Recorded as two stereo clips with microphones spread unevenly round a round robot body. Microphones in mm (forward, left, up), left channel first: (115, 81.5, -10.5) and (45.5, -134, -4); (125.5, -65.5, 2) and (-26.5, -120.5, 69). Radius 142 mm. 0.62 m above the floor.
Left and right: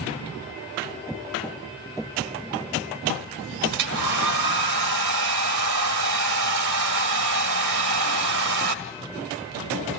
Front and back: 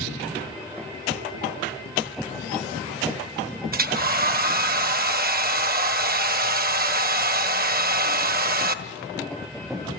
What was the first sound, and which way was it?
A hair dryer, 125° right.